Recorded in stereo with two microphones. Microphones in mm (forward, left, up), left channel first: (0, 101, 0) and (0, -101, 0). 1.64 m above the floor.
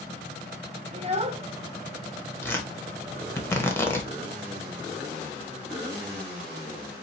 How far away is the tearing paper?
About 1.0 m.